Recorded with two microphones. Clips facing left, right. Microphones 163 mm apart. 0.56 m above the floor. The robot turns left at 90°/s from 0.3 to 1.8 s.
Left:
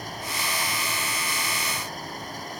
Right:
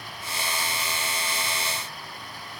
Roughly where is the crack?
I don't hear a crack.